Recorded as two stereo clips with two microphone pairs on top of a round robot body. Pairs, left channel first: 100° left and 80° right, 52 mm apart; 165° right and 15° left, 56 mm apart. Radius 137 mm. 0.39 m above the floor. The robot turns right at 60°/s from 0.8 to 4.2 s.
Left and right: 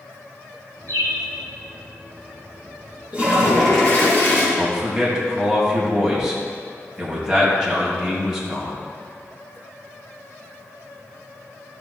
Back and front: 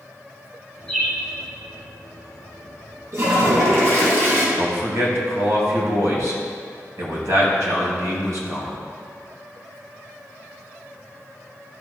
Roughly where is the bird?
Right.